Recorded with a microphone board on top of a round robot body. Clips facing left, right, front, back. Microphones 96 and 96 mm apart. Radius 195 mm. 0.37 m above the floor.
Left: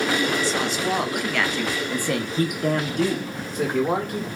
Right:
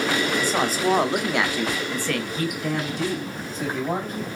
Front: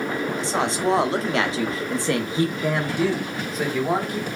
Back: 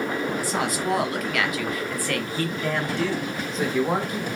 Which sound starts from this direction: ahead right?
A woman speaking, at 0.4 s.